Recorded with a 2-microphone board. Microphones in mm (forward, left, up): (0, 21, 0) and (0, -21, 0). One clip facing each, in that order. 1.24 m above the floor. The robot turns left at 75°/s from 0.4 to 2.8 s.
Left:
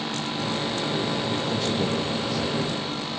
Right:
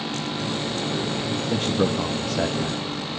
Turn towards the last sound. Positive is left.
turn(degrees=-145)